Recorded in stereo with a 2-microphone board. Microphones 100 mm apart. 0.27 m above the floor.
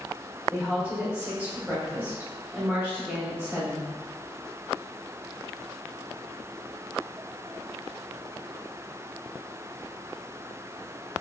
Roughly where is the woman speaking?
Centre.